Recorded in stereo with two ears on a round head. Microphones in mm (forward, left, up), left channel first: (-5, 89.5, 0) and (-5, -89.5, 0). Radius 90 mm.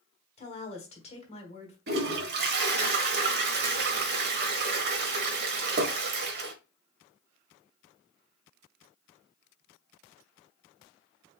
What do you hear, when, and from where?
0.4 s a woman speaking: 30° left (ahead or behind), 1.4 m
1.9 s a toilet flushing: 50° right (ahead or behind), 1.2 m